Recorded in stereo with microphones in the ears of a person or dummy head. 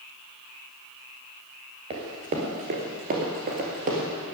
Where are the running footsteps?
30° right (ahead or behind), 2.0 m; by 4.1 s 50° right (ahead or behind), 2.5 m.